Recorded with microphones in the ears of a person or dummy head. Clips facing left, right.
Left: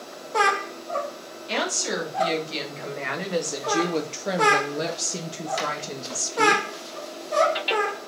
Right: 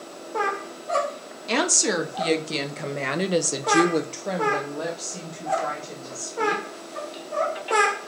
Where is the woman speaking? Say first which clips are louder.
Right 4 dB; 70° right (ahead or behind), 1.8 m; by 6.6 s 50° left (ahead or behind), 2.0 m.